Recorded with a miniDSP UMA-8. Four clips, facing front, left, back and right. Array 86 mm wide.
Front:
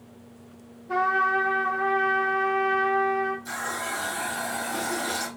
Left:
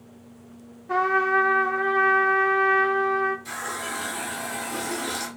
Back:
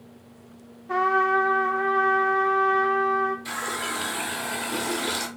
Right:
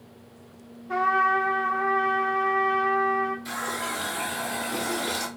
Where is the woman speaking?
I don't hear a woman speaking.